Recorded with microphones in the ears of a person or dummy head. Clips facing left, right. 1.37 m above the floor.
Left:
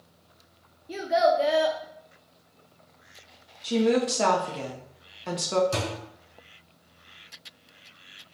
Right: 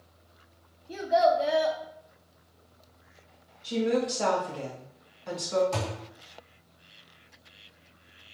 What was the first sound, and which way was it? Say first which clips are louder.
A child speaking: left 1 dB; 25° left (ahead or behind).